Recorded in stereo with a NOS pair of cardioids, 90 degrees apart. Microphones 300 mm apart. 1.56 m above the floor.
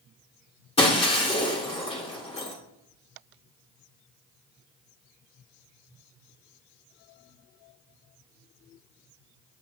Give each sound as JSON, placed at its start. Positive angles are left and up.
{"t": 0.8, "sound": "breaking glass", "azimuth_deg": 20, "distance_m": 3.0}